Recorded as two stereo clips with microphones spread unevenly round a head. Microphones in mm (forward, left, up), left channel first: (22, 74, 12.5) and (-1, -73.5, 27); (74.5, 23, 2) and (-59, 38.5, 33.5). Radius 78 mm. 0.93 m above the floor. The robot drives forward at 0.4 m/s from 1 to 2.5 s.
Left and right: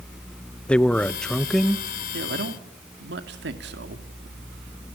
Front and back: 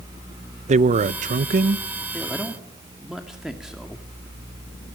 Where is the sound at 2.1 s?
95° right, 2 m.